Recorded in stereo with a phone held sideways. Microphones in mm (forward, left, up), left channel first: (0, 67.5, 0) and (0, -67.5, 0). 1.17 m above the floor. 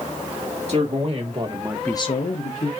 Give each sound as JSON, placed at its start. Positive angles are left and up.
{"t": 0.7, "sound": "a man speaking", "side_deg": -50, "distance_m": 2.0}